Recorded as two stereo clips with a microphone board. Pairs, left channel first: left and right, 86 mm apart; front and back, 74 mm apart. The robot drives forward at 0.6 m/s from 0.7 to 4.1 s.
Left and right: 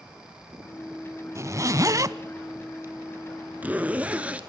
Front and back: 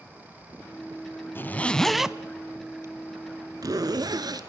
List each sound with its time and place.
1.4 s a zipper: 50° right, 0.7 m; by 4.4 s 160° right, 1.5 m